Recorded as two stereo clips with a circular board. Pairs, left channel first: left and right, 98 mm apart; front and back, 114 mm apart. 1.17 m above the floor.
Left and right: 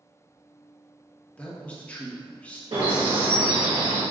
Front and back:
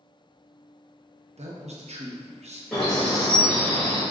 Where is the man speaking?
165° left, 0.7 m.